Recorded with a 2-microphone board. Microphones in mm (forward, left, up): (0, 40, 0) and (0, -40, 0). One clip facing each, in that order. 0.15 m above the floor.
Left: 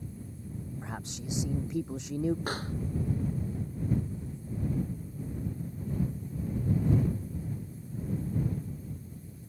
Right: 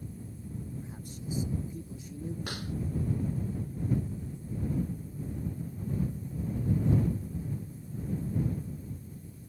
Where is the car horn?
I don't hear a car horn.